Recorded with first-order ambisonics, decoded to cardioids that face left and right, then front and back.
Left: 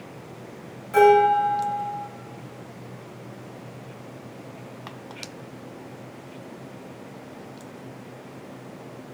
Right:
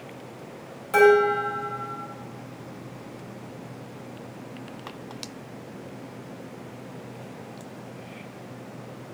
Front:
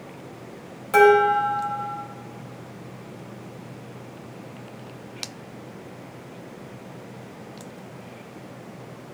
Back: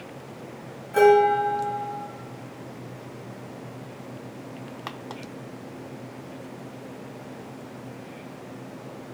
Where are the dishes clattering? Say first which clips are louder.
Left 2 dB, front 2 dB; 20° right, 4.5 m.